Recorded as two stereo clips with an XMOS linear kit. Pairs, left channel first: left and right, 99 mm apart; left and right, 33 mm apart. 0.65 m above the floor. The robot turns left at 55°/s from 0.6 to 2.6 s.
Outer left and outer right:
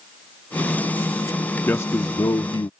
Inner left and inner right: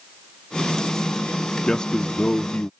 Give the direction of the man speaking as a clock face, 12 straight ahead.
7 o'clock.